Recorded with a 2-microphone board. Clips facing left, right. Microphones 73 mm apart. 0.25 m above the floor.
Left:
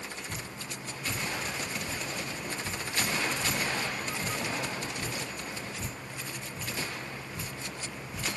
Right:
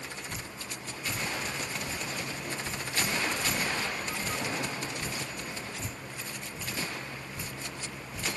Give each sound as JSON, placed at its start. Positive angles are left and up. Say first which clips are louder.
{"t": 0.3, "sound": "dripping", "louder": "left 1 dB", "side_deg": 70, "distance_m": 4.5}